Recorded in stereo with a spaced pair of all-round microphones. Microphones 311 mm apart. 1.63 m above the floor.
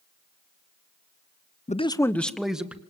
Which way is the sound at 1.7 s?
25° left (ahead or behind).